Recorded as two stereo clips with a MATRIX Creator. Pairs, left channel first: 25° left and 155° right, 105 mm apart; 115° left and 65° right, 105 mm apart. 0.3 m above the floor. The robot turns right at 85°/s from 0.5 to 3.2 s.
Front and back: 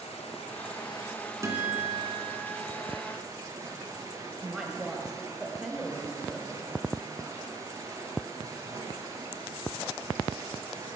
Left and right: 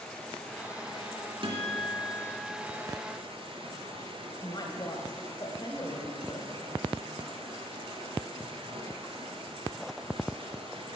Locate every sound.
0.0 s running water: 30° left, 1.9 m; by 11.0 s 100° right, 1.9 m
1.4 s a guitar: 100° right, 2 m; by 2.5 s 10° right, 2 m
4.4 s a woman speaking: 120° left, 1.2 m